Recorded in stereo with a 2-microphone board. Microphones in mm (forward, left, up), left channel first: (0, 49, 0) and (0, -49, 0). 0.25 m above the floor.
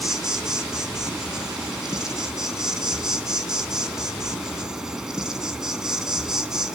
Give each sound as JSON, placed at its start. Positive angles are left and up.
{"t": 0.0, "sound": "an insect", "side_deg": -5, "distance_m": 1.3}